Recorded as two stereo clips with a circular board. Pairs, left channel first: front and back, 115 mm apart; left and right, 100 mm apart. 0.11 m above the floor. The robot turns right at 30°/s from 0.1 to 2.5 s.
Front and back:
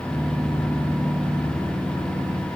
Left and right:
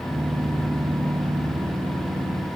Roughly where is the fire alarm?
No fire alarm in this recording.